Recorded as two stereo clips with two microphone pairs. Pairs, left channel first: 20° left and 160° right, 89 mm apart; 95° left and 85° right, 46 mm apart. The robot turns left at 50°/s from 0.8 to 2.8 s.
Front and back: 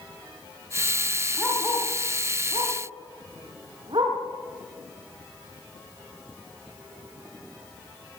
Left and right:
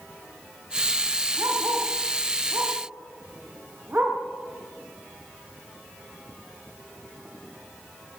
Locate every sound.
1.4 s a dog barking: 65° right, 8 m; by 4.2 s 140° right, 8 m